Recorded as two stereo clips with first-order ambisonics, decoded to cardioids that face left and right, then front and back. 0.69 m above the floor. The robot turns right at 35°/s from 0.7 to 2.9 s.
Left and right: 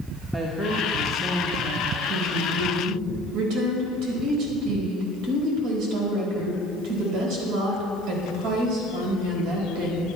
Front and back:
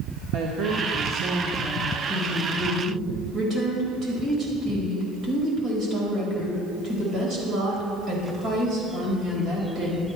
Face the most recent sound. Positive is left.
turn(degrees=-115)